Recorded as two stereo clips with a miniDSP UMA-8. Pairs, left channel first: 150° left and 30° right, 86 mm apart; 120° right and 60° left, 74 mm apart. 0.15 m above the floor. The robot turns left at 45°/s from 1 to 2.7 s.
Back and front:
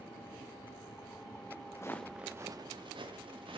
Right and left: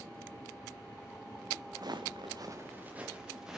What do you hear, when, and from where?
1.8 s footsteps: 100° left, 0.7 m; by 3.6 s 25° right, 1.6 m